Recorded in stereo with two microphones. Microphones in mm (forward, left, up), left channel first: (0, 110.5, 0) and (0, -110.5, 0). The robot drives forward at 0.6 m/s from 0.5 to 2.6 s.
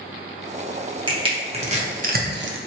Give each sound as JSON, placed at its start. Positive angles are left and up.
{"t": 1.1, "sound": "crushing", "side_deg": -20, "distance_m": 1.2}